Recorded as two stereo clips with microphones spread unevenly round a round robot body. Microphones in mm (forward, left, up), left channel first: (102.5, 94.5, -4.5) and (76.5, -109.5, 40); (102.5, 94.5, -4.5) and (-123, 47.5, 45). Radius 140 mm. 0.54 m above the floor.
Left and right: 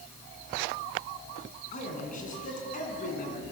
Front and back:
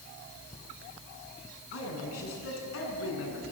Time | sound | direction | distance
1.7 | a man speaking | 30° left | 7.5 m